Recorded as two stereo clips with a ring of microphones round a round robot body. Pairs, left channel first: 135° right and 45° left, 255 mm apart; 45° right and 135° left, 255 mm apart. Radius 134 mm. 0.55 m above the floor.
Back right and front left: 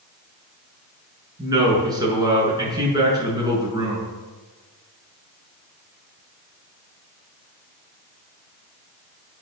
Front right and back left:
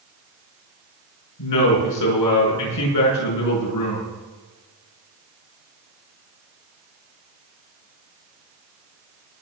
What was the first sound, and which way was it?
A man speaking, 30° right.